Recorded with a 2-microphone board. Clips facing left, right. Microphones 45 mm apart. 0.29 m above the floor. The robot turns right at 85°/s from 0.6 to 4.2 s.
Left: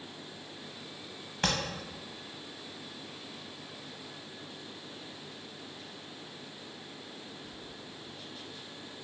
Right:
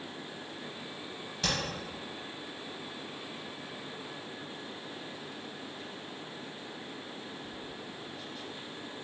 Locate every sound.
1.4 s tapping: 45° left (ahead or behind), 0.8 m; by 1.6 s 55° left (ahead or behind), 0.8 m